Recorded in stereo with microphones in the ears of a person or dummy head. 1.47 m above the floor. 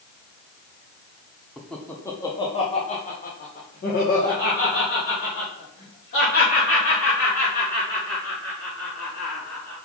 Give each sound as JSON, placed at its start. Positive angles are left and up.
{"t": 1.6, "sound": "laughter", "side_deg": -5, "distance_m": 1.1}